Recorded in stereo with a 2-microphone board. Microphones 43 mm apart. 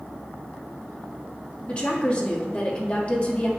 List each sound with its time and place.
1.7 s a woman speaking: 25° left (ahead or behind), 1.6 m